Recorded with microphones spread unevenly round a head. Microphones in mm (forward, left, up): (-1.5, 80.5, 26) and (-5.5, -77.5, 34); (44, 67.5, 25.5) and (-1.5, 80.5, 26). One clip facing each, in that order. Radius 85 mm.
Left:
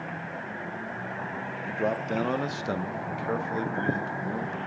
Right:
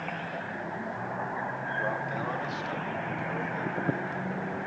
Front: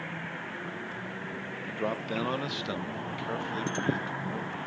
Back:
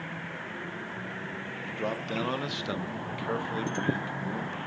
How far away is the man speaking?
About 1.0 m.